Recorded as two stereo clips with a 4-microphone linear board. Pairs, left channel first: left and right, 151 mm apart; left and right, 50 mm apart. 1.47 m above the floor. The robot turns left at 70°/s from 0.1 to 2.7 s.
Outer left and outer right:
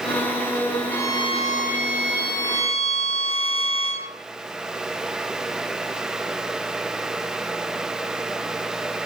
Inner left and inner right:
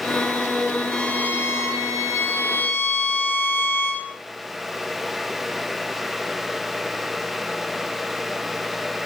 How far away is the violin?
About 0.7 m.